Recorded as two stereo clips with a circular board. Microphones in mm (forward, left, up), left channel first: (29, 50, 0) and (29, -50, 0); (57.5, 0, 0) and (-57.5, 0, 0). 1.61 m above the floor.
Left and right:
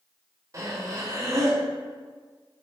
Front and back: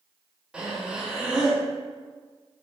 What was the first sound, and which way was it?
Breathing, 105° right.